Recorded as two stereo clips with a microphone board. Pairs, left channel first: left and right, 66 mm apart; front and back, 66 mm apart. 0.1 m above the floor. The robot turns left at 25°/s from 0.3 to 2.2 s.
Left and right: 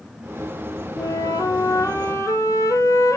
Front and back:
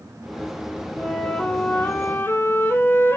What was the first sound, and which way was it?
A flute, 85° left.